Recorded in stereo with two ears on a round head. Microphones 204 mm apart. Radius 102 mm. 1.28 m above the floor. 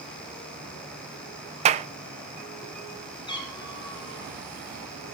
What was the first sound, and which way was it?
A clap, 30° right (ahead or behind).